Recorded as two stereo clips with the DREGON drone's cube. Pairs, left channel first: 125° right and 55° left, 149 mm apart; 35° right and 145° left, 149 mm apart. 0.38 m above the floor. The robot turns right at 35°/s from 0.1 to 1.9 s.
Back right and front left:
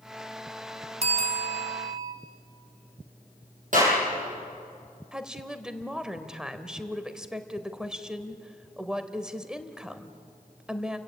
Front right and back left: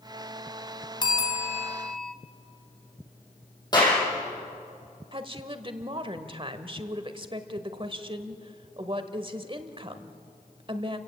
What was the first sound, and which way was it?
A bell, 20° left.